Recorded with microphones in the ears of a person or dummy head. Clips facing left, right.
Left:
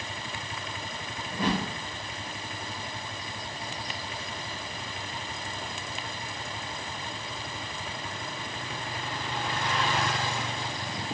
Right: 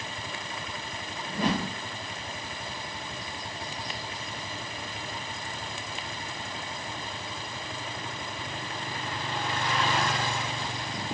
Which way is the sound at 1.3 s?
35° right (ahead or behind).